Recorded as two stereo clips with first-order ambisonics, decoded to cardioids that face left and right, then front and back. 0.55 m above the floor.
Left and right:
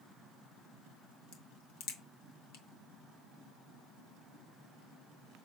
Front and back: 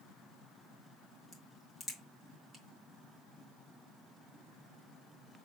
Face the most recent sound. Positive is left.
turn(degrees=90)